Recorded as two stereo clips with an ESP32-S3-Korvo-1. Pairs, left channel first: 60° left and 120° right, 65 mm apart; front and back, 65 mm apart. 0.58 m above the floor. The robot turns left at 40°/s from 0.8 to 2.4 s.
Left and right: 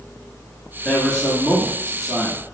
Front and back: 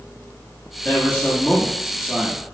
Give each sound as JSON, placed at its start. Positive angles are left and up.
{"t": 0.8, "sound": "a man speaking", "azimuth_deg": 0, "distance_m": 0.9}